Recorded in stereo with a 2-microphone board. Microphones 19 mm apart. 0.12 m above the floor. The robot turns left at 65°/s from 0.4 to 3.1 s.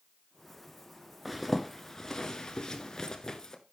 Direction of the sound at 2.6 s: 35° left (ahead or behind).